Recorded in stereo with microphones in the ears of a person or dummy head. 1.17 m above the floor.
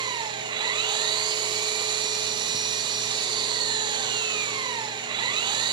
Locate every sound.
0.0 s an engine running: 25° right (ahead or behind), 1.2 m